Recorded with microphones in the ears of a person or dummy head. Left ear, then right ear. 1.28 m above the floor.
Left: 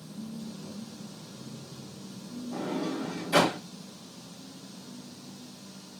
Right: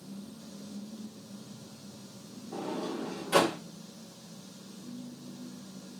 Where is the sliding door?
55° right (ahead or behind), 1.2 m.